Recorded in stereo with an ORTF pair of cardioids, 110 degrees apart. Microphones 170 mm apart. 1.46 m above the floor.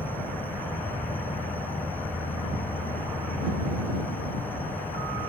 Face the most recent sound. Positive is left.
turn(degrees=10)